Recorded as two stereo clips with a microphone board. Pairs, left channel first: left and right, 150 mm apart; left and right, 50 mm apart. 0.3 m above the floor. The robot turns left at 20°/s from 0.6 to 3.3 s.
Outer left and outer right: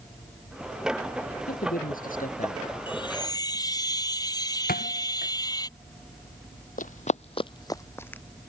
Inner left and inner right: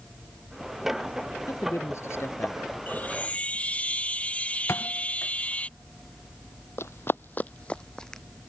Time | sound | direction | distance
1.5 | a man speaking | 75° left (ahead or behind) | ?
2.9 | a chime | 35° left (ahead or behind) | ?
4.7 | a thud | 80° left | ?
6.8 | running footsteps | 70° left (ahead or behind) | ?